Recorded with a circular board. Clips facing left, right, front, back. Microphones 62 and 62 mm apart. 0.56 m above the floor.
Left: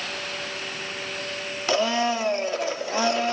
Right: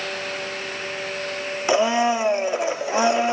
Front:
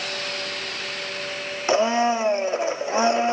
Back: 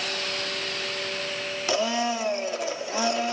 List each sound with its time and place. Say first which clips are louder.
1.7 s a blender: right 4 dB, front 6 dB; 35° right, 0.6 m